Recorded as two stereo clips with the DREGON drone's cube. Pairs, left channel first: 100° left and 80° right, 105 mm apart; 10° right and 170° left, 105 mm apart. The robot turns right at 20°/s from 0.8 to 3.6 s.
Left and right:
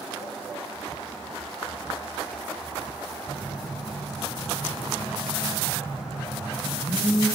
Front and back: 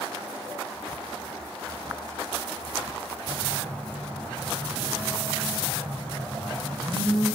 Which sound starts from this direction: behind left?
A phone buzzing, at 3.2 s.